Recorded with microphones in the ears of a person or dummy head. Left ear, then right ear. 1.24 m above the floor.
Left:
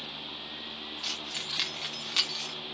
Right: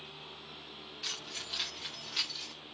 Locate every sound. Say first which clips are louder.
1.0 s keys jangling: left 4 dB; centre (ahead or behind), 0.6 m; by 2.5 s 55° left (ahead or behind), 1.0 m